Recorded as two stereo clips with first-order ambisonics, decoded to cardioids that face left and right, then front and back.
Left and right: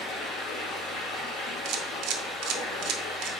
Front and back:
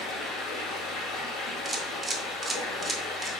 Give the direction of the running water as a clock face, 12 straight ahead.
11 o'clock.